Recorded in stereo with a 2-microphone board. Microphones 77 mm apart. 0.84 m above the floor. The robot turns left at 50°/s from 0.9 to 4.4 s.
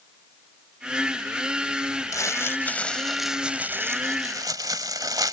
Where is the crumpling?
55° left; by 5.3 s 60° right.